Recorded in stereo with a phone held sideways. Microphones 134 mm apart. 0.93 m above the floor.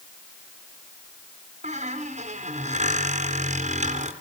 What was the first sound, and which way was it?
A squeak, 65° right (ahead or behind).